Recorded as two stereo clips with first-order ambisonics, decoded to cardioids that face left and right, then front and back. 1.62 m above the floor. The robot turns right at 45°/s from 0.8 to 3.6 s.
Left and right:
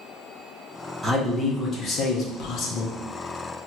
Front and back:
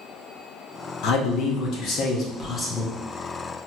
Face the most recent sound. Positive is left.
turn(degrees=110)